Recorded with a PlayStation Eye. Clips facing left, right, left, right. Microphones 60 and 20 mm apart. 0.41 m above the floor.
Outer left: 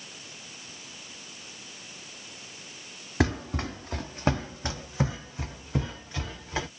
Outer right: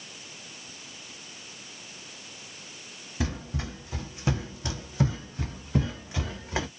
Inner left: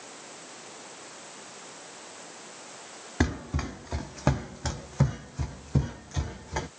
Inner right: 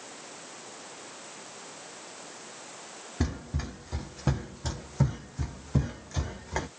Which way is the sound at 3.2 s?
65° left (ahead or behind).